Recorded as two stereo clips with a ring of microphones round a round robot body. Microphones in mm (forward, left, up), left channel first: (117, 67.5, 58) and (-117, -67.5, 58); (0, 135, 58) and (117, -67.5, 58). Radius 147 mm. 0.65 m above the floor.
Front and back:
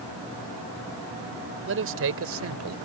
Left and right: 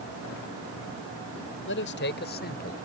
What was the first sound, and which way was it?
A man speaking, 165° left.